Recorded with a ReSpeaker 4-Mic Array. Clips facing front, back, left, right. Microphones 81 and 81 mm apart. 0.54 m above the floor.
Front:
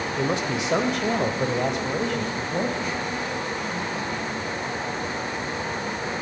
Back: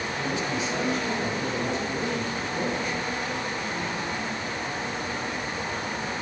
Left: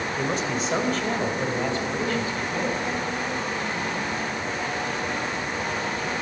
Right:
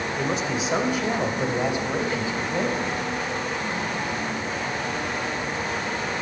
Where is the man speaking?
Straight ahead, 2 m; by 3.9 s 30° right, 4 m.